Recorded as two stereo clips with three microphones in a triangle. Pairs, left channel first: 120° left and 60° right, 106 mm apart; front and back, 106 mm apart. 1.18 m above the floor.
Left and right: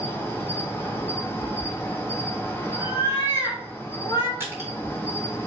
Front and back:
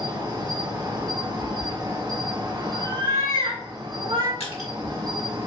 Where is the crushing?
5° left, 1.9 m.